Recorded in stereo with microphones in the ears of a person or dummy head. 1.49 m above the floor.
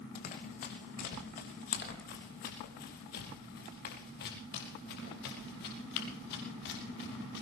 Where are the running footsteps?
45° left (ahead or behind), 3 m; by 7.4 s 60° left (ahead or behind), 7 m.